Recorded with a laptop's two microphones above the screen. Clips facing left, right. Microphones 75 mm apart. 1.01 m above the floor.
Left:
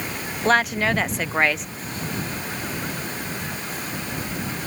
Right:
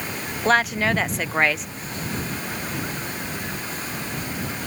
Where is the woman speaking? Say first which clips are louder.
Even; centre (ahead or behind).